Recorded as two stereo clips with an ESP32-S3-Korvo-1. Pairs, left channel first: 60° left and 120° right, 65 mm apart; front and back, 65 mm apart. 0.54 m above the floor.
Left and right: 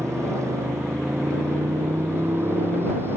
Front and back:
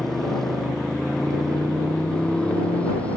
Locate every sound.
0.0 s a motorcycle: 85° right; by 3.2 s 70° right